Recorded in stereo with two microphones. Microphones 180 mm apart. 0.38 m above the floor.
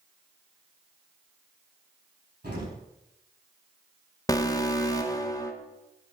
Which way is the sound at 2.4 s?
75° right (ahead or behind).